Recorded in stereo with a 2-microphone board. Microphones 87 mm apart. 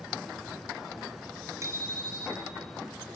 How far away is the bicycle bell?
About 4 m.